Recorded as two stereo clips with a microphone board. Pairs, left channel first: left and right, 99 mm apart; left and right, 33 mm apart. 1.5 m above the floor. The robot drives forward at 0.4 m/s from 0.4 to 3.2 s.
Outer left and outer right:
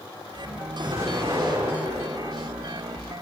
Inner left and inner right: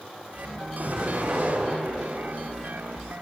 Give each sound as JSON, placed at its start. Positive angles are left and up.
{"t": 0.8, "sound": "an explosion", "side_deg": -65, "distance_m": 4.5}